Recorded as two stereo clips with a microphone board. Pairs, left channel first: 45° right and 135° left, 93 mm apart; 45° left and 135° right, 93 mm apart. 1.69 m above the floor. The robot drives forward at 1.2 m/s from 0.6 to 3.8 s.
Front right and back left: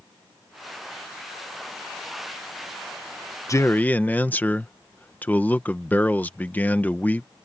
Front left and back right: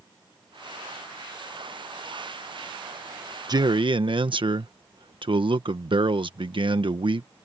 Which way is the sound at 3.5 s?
95° right.